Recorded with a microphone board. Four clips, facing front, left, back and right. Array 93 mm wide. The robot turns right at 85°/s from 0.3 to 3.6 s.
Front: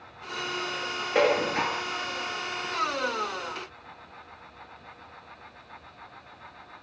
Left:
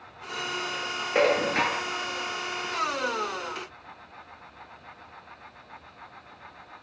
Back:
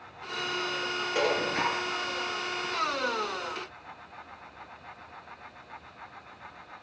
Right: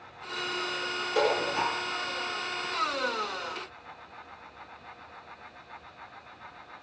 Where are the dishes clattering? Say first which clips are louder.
Left 4 dB, front 5 dB; 50° left, 2 m; by 1.9 s 120° left, 2 m.